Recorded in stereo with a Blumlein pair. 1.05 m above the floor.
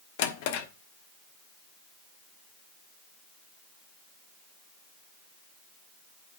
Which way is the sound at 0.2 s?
50° left.